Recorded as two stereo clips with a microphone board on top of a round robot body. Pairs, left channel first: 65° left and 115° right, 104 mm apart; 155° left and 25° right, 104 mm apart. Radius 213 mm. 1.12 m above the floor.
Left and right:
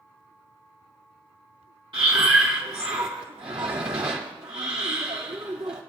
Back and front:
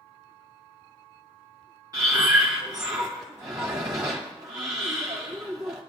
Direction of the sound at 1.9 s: 75° right.